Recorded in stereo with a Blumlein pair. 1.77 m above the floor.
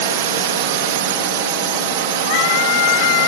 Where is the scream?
45° left.